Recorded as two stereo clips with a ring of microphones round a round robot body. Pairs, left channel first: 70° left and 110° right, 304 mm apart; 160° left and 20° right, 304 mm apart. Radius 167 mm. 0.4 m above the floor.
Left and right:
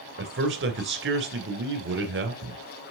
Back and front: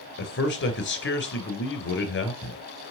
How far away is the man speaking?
About 2.5 m.